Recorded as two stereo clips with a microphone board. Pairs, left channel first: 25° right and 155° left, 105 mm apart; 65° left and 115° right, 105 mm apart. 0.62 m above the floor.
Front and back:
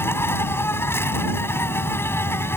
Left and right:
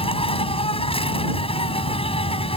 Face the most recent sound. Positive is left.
turn(degrees=45)